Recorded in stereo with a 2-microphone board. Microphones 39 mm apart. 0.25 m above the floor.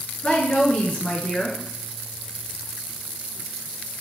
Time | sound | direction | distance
0.2 | a woman speaking | 30° left (ahead or behind) | 3.5 m